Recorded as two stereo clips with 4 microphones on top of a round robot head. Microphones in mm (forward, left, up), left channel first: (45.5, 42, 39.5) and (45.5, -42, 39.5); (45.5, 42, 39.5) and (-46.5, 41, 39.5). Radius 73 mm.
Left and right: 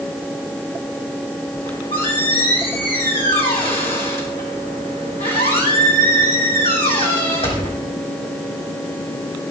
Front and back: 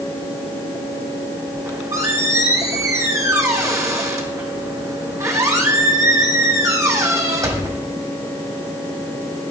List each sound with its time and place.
1.5 s a squeak: 125° left, 2.5 m